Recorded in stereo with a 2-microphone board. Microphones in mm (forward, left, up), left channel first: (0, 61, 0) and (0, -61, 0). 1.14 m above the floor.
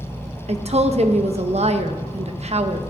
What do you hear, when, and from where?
0.5 s a woman speaking: 60° right (ahead or behind), 1.0 m